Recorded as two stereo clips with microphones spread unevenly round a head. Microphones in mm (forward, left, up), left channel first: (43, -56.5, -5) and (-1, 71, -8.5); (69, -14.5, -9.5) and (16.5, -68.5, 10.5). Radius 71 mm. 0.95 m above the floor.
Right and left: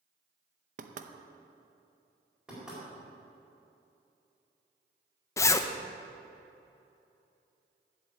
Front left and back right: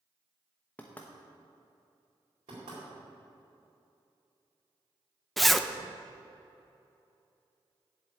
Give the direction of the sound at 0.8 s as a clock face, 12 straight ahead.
9 o'clock.